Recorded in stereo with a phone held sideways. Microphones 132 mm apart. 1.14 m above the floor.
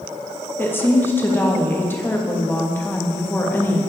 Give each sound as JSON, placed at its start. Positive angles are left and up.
{"t": 0.6, "sound": "a woman speaking", "side_deg": 15, "distance_m": 1.1}